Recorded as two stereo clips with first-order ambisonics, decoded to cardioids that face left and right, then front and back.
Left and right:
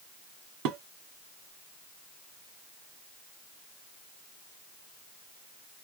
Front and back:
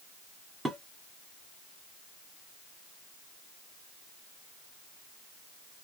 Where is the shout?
No shout in this recording.